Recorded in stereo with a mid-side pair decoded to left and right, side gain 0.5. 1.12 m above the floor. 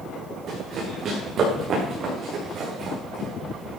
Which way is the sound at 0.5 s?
55° right.